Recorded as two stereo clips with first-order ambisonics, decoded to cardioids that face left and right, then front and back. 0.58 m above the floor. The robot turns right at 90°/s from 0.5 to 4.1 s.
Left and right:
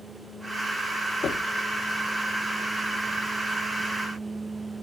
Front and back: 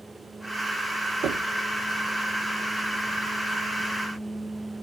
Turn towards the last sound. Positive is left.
turn(degrees=45)